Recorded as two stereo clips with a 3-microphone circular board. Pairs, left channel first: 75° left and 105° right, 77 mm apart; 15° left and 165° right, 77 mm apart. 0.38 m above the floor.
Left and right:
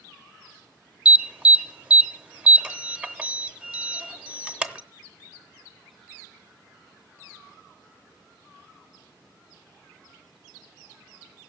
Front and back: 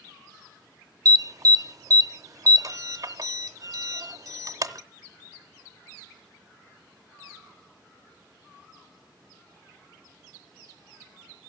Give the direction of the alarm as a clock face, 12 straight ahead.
6 o'clock.